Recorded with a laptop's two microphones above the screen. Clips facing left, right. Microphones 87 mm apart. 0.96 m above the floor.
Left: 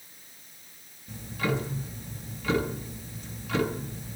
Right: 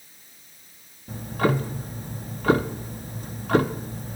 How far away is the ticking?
About 0.6 m.